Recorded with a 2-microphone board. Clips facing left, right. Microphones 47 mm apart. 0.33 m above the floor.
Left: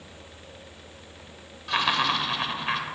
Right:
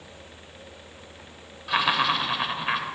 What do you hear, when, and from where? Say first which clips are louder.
1.7 s laughter: right 1 dB; 10° right (ahead or behind), 0.9 m